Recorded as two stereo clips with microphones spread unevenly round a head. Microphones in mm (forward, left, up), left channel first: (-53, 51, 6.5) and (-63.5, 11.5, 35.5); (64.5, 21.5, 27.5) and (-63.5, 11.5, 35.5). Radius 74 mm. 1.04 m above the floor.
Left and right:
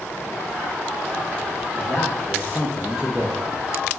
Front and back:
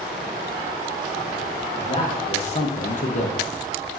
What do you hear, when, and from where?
1.7 s a man speaking: 55° left, 1.9 m; by 3.7 s 50° right, 1.3 m